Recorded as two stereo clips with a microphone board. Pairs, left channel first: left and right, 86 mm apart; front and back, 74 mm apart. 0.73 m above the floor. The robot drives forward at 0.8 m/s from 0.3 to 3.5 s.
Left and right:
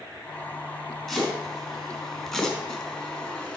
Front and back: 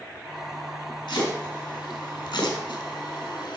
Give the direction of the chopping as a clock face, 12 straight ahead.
12 o'clock.